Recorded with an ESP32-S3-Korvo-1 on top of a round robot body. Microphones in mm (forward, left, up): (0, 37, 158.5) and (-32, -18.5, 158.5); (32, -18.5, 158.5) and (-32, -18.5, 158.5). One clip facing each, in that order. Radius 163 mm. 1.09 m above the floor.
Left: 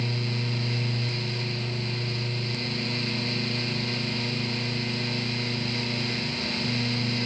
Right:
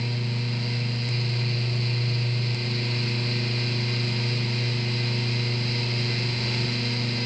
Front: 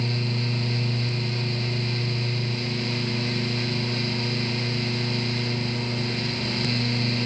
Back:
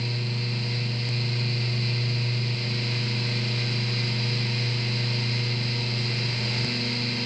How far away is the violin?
I don't hear a violin.